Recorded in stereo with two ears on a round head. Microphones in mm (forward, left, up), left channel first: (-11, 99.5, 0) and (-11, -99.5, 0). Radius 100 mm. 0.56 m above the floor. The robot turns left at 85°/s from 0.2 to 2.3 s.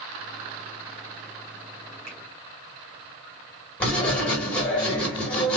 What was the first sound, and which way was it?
A finger snap, 30° right (ahead or behind).